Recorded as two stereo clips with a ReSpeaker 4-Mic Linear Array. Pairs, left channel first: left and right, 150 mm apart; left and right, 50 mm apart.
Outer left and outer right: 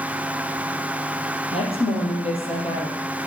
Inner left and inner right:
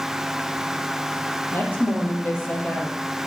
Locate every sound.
1.5 s a woman speaking: 40° left (ahead or behind), 4.5 m